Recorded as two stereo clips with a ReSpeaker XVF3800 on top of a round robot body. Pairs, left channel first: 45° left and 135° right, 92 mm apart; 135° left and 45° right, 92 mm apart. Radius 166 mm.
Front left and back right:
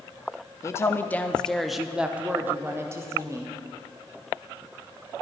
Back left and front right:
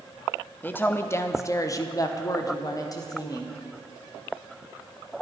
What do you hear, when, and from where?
0.6 s a woman speaking: 80° left, 1.0 m; by 3.5 s straight behind, 1.5 m